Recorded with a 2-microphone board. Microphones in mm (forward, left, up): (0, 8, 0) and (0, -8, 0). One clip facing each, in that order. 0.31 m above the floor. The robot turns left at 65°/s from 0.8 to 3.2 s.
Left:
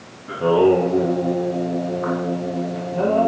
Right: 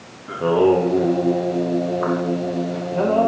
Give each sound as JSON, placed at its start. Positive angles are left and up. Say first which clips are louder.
{"t": 0.3, "sound": "singing", "louder": "left 1 dB", "azimuth_deg": -15, "distance_m": 4.0}